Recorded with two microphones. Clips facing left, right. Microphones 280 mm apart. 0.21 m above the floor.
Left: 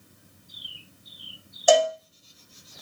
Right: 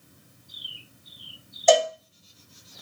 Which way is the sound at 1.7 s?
10° left (ahead or behind).